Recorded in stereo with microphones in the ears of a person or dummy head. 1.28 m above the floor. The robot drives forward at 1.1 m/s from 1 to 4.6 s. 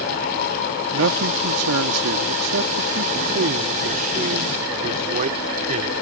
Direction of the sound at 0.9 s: 75° right (ahead or behind).